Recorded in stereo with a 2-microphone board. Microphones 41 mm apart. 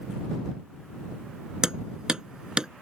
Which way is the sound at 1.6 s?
20° right (ahead or behind).